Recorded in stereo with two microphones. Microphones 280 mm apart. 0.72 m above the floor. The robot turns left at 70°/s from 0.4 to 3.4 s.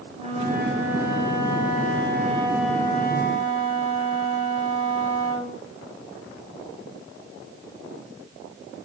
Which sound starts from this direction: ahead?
A flute, at 0.1 s.